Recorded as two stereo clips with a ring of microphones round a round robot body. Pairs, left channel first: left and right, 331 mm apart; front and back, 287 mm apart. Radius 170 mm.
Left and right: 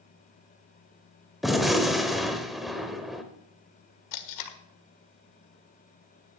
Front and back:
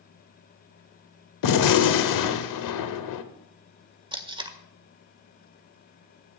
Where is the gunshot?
Straight ahead, 1.2 m.